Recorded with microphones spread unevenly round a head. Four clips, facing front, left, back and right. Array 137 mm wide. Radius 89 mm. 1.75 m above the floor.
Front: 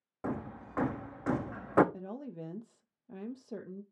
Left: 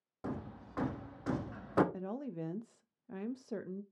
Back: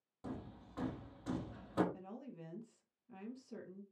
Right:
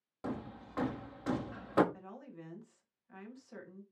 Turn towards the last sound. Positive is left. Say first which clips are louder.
# left 9 dB, front 8 dB
turn(degrees=65)